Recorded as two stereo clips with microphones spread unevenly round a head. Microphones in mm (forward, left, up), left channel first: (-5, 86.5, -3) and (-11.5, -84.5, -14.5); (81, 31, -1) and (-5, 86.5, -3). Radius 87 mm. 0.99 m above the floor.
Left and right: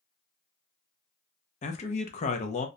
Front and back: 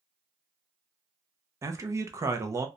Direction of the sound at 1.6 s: 110° left.